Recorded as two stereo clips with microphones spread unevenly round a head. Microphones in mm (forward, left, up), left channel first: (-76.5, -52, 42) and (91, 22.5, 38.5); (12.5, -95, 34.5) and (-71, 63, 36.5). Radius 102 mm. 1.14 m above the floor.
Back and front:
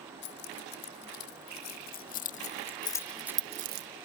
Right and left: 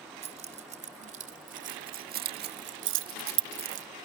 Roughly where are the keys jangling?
Behind.